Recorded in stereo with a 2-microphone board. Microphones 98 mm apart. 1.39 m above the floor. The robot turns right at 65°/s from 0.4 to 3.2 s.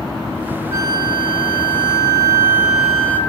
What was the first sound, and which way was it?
A flute, 140° right.